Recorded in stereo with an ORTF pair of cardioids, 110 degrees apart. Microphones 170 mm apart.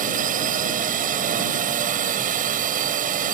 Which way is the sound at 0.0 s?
55° right.